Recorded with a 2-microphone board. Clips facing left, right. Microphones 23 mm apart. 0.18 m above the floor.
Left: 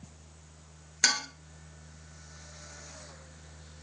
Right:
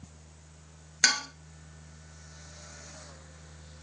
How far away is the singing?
No singing in this recording.